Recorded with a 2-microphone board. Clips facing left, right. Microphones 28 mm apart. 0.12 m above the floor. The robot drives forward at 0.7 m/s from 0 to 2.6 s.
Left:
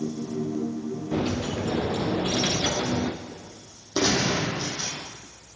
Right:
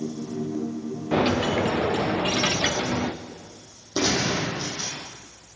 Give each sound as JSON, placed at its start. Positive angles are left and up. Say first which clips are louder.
{"t": 1.1, "sound": "a dropped coin", "louder": "right 7 dB", "side_deg": -50, "distance_m": 0.9}
{"t": 4.0, "sound": "a gunshot", "louder": "even", "side_deg": 15, "distance_m": 4.0}